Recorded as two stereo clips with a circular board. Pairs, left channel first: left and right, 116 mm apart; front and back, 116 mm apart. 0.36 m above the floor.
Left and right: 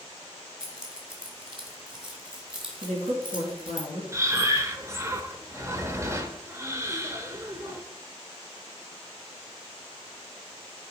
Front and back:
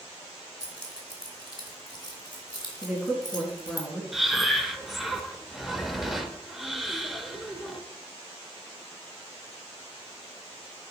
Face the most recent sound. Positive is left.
turn(degrees=-95)